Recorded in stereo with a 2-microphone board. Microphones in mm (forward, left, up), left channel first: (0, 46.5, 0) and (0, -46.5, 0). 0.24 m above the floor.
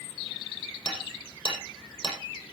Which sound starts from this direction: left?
Hammering, at 0.8 s.